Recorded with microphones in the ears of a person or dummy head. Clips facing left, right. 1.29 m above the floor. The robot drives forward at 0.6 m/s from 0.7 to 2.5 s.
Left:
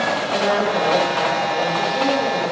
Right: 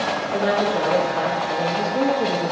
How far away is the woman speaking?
About 1.4 m.